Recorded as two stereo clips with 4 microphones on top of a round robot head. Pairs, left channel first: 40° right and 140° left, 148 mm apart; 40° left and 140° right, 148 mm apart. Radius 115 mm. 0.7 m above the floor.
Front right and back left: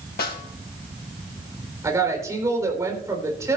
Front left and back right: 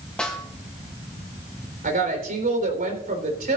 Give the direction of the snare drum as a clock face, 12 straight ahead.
1 o'clock.